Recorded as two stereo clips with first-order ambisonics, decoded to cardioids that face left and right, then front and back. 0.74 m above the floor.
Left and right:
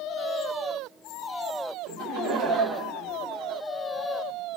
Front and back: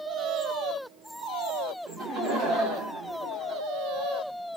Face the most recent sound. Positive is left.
turn(degrees=-130)